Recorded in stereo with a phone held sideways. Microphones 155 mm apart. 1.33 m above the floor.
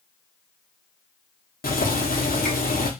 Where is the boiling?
70° left (ahead or behind), 0.7 m.